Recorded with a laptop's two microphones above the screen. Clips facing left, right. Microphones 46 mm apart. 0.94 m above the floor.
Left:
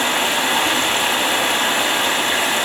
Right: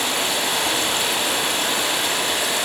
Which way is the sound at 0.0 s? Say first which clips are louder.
Left 4 dB; 35° left (ahead or behind).